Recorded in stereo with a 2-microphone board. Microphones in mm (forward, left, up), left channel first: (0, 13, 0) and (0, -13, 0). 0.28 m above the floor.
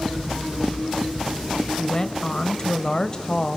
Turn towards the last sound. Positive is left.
turn(degrees=30)  # may be behind; listen again after turning